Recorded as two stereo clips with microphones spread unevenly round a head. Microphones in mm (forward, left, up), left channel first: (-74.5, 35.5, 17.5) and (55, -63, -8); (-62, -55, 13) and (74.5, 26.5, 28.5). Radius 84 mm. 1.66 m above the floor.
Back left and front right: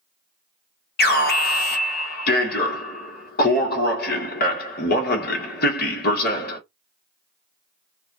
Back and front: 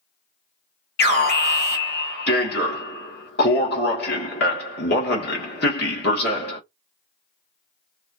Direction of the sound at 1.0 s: 170° left.